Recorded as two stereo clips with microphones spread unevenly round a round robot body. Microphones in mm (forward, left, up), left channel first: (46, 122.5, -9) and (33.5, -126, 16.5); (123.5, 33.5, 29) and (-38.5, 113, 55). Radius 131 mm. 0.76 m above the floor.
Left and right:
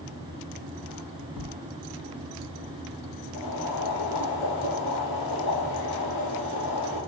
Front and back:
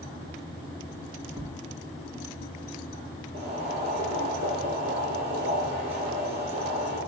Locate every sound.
1.3 s footsteps: 75° left, 5 m
3.3 s boiling: 100° left, 5 m